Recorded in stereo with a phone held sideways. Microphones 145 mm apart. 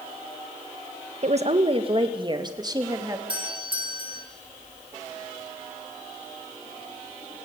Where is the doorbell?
35° right (ahead or behind), 3.5 m.